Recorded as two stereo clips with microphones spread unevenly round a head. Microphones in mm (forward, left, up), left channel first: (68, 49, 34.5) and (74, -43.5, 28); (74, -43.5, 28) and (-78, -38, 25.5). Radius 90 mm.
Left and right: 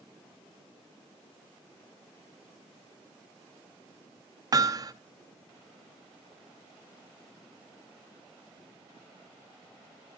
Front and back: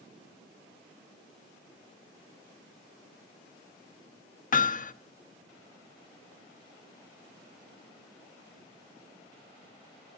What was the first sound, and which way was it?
Hammering, 35° right.